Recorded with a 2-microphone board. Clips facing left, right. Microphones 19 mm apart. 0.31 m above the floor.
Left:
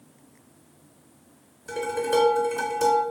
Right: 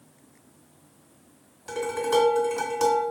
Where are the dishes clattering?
30° right (ahead or behind), 1.8 m.